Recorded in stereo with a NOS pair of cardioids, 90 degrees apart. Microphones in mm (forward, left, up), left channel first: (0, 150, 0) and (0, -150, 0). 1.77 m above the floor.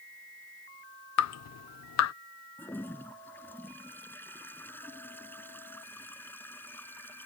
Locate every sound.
1.2 s dripping: 60° left
2.6 s a toilet flushing: 5° left